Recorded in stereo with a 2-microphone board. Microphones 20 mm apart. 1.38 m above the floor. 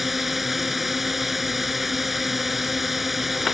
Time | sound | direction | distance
0.0 | a drone | 5° right (ahead or behind) | ?